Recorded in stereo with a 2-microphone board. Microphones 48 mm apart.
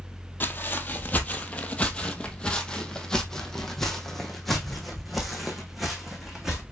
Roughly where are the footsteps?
Left.